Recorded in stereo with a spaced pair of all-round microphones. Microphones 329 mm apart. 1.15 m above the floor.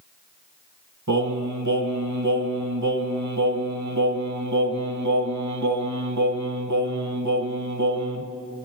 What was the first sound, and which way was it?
Singing, 60° right (ahead or behind).